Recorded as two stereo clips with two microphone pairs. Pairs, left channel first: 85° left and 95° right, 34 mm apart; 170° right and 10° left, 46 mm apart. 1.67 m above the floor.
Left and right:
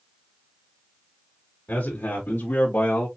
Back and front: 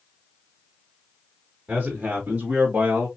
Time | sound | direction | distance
1.7 | a man speaking | 70° left | 3 m